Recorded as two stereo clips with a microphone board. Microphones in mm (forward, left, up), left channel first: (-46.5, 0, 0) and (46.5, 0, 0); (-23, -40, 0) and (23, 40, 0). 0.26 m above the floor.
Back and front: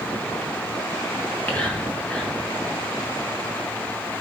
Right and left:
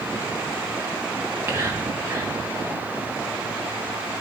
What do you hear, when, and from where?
1.2 s whispering: 115° left, 1.9 m